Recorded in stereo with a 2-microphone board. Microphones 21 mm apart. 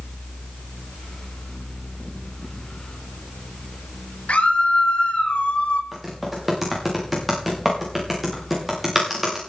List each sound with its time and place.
4.3 s a scream: 75° left (ahead or behind), 5 m; by 5.8 s 65° left (ahead or behind), 3 m
5.9 s typing on a keyboard: centre (ahead or behind), 6.5 m